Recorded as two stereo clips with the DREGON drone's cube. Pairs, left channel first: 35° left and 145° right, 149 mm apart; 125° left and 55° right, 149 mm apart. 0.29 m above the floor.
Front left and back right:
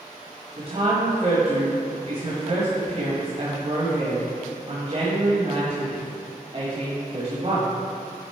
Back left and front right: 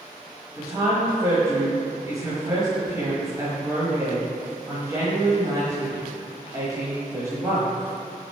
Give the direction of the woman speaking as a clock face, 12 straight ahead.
4 o'clock.